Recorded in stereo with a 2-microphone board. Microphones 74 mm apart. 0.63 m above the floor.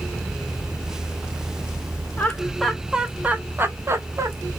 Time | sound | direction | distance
2.2 | laughter | 20° left (ahead or behind) | 0.9 m